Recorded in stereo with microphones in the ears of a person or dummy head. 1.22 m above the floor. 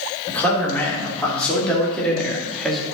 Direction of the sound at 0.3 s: 10° left (ahead or behind).